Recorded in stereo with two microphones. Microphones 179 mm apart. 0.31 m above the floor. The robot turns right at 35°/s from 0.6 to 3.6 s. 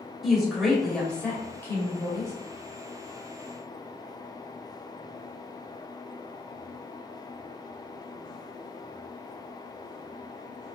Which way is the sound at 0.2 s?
Centre (ahead or behind).